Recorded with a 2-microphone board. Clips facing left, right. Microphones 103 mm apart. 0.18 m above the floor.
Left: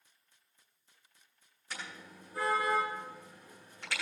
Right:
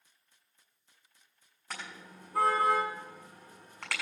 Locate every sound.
1.7 s a car horn: 80° right, 6.5 m